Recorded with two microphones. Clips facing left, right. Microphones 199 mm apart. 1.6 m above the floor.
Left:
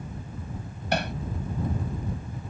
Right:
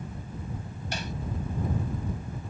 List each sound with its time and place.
0.9 s hammering: 65° left (ahead or behind)